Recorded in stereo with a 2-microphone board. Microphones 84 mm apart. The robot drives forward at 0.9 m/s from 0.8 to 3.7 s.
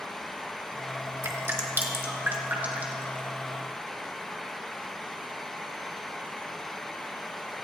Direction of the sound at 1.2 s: 35° right (ahead or behind).